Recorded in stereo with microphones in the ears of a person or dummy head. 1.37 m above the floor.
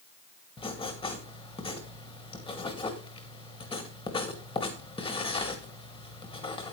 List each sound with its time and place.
0.6 s writing: 25° left (ahead or behind), 1.1 m